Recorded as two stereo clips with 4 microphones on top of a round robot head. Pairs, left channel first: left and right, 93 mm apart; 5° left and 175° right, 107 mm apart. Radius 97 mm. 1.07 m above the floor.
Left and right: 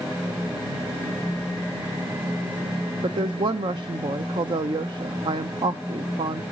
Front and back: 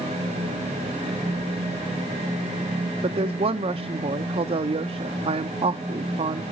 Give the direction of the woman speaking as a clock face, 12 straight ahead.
4 o'clock.